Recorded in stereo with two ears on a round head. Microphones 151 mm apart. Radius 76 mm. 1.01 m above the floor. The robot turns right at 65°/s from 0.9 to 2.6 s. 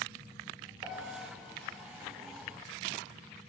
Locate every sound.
0.8 s a piano: 25° right (ahead or behind), 2.5 m; by 1.2 s 45° right (ahead or behind), 2.5 m